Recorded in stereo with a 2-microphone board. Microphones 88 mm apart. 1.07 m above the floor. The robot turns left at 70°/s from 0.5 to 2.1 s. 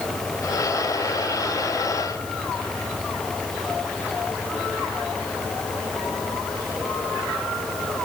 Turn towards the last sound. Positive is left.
No sound to turn to.